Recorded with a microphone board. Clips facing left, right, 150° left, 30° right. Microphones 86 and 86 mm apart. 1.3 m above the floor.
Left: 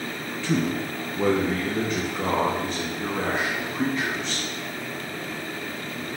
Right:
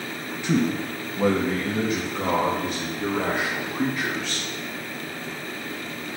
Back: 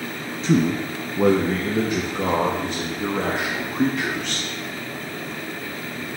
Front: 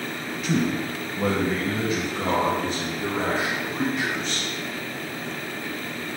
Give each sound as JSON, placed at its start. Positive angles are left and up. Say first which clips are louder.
{"t": 0.4, "sound": "a man speaking", "louder": "right 2 dB, back 5 dB", "azimuth_deg": -155, "distance_m": 0.6}